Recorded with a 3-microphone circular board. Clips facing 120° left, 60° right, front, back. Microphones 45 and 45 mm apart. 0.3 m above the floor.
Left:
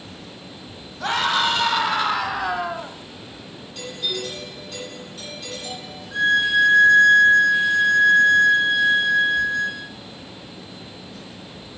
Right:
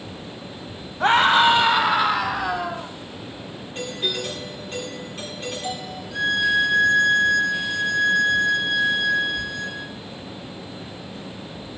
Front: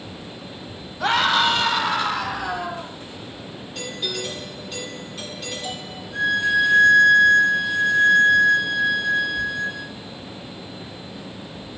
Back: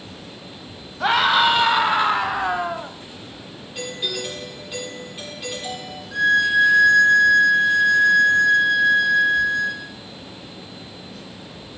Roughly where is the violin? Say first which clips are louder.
Left 3 dB, back 3 dB; behind.